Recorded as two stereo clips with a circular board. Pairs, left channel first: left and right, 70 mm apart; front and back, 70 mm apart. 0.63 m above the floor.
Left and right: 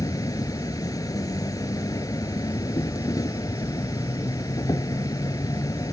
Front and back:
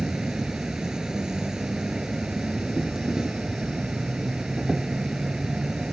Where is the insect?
100° left.